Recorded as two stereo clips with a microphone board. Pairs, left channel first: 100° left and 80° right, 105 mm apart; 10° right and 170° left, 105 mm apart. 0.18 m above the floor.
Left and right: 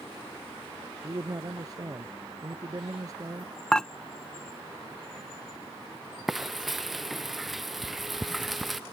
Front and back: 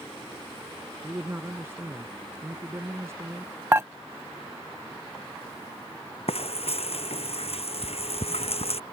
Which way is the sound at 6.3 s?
10° left.